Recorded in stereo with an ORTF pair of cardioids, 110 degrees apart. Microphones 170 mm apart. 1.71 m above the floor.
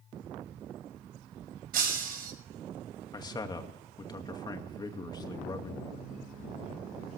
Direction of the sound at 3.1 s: 25° left.